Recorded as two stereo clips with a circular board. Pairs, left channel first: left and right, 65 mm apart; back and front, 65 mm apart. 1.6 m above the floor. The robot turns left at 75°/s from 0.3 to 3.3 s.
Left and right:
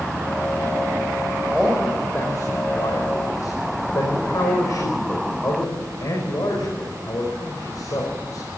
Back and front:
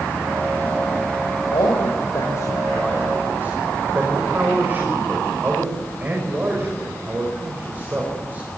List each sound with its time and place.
1.5 s a man speaking: 165° right, 5.5 m; by 8.5 s 60° left, 5.5 m